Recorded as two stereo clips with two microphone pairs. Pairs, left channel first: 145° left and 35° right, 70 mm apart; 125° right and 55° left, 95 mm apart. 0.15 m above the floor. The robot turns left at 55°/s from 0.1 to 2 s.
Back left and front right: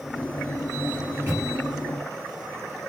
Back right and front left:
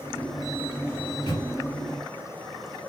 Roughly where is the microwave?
Right.